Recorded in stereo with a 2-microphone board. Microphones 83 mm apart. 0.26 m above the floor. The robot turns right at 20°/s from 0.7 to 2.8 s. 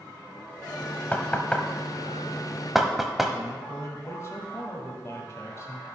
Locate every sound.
1.1 s knocking: 20° left (ahead or behind), 0.8 m; by 3.3 s 5° right (ahead or behind), 0.8 m
3.3 s a man speaking: 35° left (ahead or behind), 1.7 m